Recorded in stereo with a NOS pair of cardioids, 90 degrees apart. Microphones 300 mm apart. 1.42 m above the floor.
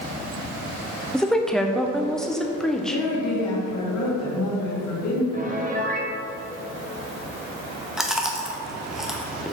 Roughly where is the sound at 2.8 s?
Ahead left.